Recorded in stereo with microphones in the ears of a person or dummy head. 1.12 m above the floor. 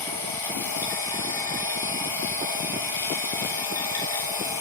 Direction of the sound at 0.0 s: 15° left (ahead or behind).